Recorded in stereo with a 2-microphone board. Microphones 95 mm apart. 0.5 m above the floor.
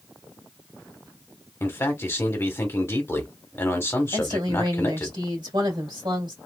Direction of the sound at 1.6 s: 25° left (ahead or behind).